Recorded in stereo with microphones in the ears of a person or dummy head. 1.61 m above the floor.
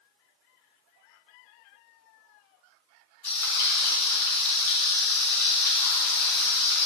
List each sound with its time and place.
3.2 s frying: 30° right (ahead or behind), 3.5 m